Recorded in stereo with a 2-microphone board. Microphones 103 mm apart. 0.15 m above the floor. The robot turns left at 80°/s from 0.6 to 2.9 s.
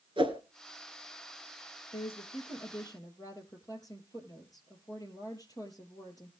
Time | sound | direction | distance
0.2 | a whoosh | 55° right (ahead or behind) | 2.0 m
1.9 | a woman speaking | 120° left | 5 m